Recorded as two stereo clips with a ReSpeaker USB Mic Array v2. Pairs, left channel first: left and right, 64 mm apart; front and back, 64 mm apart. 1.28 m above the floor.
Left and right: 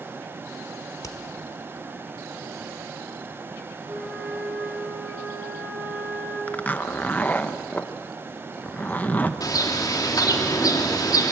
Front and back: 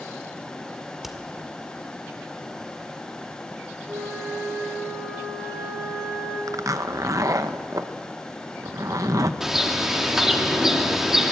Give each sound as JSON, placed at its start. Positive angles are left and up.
{"t": 1.0, "sound": "hammering", "azimuth_deg": 95, "distance_m": 1.7}
{"t": 3.9, "sound": "a flute", "azimuth_deg": -140, "distance_m": 8.0}
{"t": 6.5, "sound": "a zipper", "azimuth_deg": 155, "distance_m": 0.9}
{"t": 9.4, "sound": "a bird", "azimuth_deg": 100, "distance_m": 2.5}